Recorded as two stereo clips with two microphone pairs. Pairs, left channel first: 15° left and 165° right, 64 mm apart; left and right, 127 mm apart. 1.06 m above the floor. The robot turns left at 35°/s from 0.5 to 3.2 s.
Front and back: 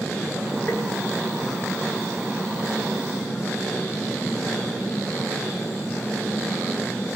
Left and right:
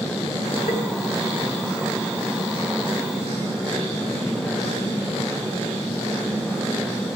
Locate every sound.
0.7 s tapping: 70° left, 7.5 m; by 0.8 s 65° left, 7.5 m